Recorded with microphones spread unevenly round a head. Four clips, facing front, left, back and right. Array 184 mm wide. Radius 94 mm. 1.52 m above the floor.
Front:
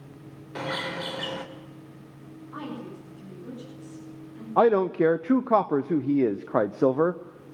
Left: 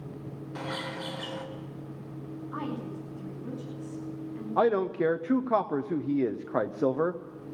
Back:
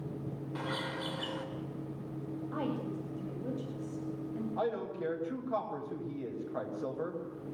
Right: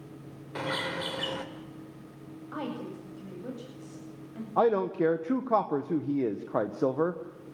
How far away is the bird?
About 2.5 m.